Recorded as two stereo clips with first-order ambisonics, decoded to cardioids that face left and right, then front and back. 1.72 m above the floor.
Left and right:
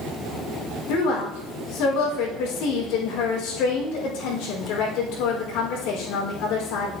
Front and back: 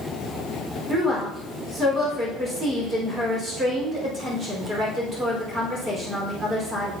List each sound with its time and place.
0.9 s a woman speaking: 110° left, 4.5 m